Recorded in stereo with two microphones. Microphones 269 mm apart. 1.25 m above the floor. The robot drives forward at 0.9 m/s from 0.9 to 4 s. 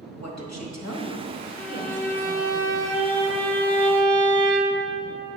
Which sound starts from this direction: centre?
A violin, at 1.6 s.